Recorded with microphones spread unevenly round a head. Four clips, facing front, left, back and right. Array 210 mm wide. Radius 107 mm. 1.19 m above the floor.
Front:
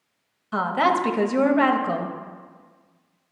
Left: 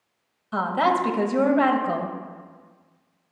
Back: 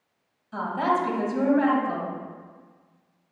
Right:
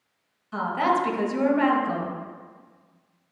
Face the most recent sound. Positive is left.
turn(degrees=25)